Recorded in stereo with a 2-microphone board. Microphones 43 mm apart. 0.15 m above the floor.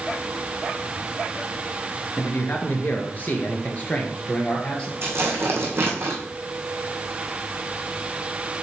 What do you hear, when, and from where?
2.2 s a man speaking: 50° left (ahead or behind), 1.9 m; by 4.9 s 25° left (ahead or behind), 3 m
5.0 s tearing paper: 65° right (ahead or behind), 2.5 m